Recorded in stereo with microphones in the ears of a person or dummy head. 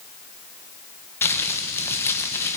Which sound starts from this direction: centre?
Crumpling, at 1.2 s.